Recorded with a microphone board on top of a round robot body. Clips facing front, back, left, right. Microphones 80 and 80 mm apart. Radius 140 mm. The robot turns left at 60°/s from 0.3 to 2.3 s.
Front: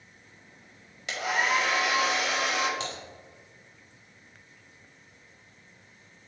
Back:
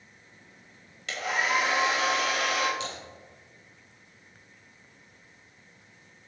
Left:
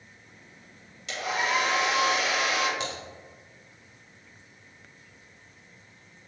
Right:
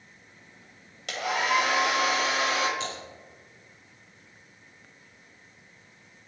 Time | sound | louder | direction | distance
1.1 | a hair dryer | front 1 dB, right 1 dB | 75° right | 1.7 m
2.8 | typing on a keyboard | even, left 1 dB | 50° left | 1.3 m